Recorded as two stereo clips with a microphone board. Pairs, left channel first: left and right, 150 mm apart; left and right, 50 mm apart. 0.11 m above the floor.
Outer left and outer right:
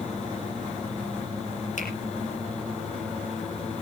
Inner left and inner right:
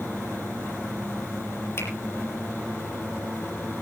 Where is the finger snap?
60° left (ahead or behind), 4.5 m.